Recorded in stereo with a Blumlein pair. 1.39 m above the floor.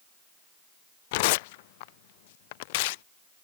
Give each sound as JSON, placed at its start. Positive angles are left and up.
{"t": 1.1, "sound": "tearing paper", "azimuth_deg": 50}